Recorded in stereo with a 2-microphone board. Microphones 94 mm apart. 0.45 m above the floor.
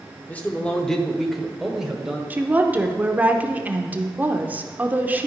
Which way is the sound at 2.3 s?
20° right (ahead or behind).